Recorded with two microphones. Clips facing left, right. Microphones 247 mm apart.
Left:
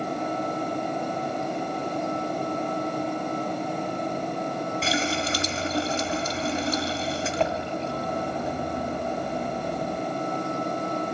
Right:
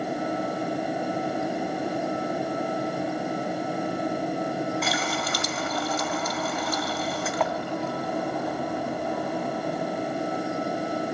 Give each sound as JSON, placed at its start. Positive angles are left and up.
{"t": 4.8, "sound": "a running tap", "side_deg": 25, "distance_m": 2.0}